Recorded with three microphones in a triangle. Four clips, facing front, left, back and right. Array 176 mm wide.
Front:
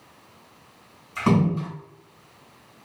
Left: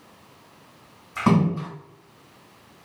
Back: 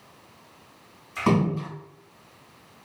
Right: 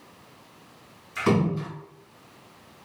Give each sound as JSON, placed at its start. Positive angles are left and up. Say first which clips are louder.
{"t": 1.1, "sound": "a splash", "louder": "left 3 dB, front 2 dB", "azimuth_deg": 95, "distance_m": 1.9}